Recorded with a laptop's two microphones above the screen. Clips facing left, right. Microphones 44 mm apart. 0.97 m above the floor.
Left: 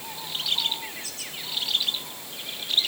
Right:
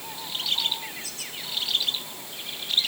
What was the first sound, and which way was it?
Only background noise.